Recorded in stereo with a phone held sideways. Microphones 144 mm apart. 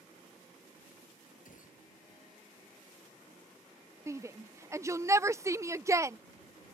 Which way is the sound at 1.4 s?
65° left (ahead or behind).